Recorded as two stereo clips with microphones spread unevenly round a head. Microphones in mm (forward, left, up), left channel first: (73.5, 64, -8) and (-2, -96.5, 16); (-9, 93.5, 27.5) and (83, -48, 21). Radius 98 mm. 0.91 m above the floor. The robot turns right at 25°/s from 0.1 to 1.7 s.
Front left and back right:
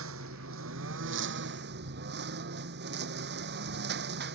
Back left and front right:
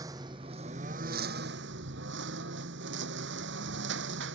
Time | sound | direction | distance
0.0 | a lawn mower | 130° right | ?